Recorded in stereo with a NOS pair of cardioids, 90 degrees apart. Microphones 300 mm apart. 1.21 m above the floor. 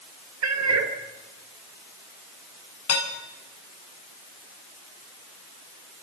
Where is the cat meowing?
60° right, 2.5 m.